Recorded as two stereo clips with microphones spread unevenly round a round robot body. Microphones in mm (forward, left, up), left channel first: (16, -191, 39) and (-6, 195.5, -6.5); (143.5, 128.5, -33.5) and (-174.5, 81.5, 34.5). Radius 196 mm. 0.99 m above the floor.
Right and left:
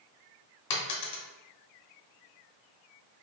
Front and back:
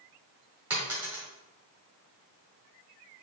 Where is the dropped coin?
100° right, 0.8 m.